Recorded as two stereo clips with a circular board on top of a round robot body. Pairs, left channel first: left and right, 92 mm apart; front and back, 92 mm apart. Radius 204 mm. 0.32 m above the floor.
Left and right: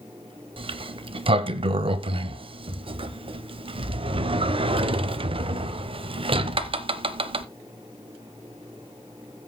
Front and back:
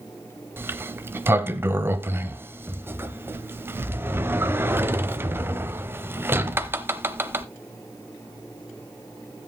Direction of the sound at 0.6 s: 115° right.